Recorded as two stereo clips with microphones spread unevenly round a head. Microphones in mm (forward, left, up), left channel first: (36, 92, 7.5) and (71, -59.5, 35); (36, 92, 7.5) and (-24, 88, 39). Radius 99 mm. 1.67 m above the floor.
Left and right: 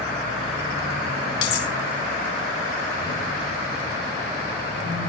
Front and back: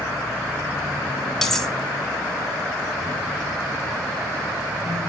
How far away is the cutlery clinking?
About 2.5 m.